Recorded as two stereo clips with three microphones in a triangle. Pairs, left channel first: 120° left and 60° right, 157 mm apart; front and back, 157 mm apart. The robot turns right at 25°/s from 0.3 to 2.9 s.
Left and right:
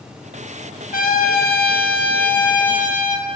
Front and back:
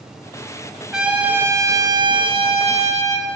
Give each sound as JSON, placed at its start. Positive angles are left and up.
{"t": 0.9, "sound": "a trumpet", "azimuth_deg": 95, "distance_m": 0.7}